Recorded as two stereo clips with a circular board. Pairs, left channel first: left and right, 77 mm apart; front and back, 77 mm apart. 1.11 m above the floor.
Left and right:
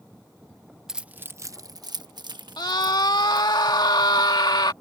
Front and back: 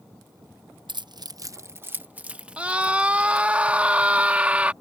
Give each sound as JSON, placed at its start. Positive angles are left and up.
{"t": 0.9, "sound": "keys jangling", "azimuth_deg": -175}
{"t": 2.6, "sound": "a scream", "azimuth_deg": 105}